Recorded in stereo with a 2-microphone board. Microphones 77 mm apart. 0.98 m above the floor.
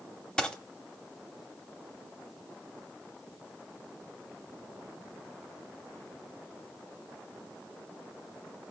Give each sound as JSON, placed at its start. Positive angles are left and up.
{"t": 0.4, "sound": "a dropped coin", "side_deg": 10, "distance_m": 0.8}